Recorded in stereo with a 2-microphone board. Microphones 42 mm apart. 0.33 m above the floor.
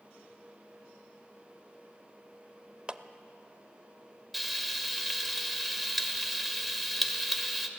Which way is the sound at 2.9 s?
25° right (ahead or behind).